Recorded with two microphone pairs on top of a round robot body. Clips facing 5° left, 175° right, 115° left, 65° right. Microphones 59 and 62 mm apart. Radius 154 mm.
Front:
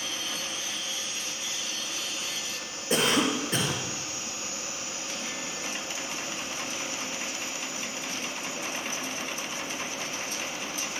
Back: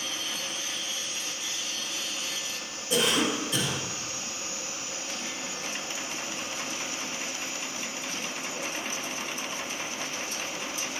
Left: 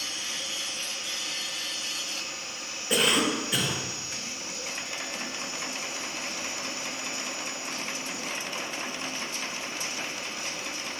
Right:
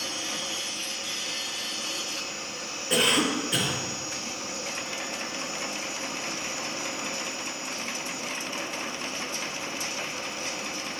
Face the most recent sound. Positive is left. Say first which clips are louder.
# front 1 dB, right 1 dB
turn(degrees=15)